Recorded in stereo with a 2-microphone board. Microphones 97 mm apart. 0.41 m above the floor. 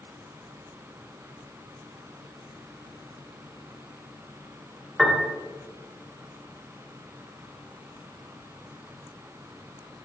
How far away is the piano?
About 1.8 m.